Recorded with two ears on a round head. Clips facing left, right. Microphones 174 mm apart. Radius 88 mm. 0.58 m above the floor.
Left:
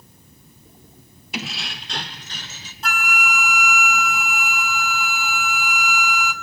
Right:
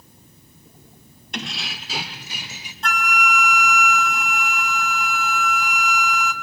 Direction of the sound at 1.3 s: 5° left (ahead or behind).